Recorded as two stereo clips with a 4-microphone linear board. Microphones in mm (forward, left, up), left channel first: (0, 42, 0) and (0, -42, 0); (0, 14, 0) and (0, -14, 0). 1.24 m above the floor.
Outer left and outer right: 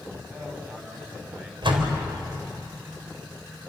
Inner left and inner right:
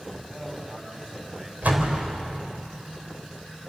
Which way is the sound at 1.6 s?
80° right.